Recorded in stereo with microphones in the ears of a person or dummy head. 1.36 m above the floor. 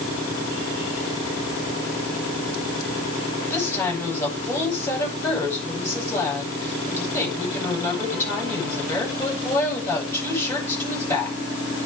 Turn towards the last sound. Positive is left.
turn(degrees=10)  # may be behind; listen again after turning